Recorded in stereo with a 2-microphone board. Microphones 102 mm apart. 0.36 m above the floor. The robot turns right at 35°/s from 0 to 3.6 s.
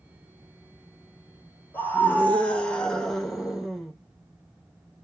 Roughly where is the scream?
Centre.